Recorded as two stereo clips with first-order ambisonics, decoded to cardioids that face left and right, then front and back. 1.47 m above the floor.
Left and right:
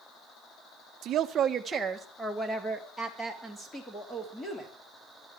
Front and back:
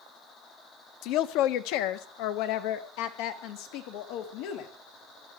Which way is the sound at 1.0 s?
35° right.